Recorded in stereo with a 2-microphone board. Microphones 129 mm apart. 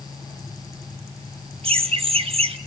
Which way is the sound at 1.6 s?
50° right (ahead or behind).